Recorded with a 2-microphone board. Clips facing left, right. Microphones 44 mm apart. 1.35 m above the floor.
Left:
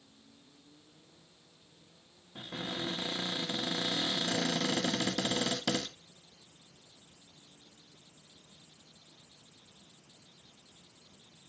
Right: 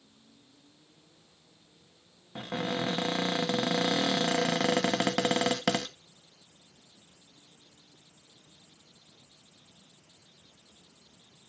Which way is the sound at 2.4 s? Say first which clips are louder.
Right 7 dB; 70° right (ahead or behind).